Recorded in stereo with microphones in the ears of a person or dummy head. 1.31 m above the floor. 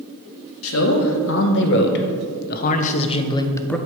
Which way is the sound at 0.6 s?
75° left (ahead or behind).